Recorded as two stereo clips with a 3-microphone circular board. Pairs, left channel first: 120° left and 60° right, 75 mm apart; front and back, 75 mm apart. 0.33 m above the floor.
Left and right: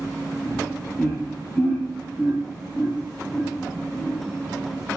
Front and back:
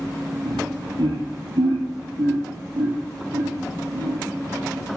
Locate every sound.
0.5 s laughter: 160° right, 7.5 m